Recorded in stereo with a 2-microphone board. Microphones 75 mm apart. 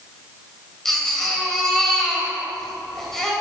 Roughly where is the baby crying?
Centre.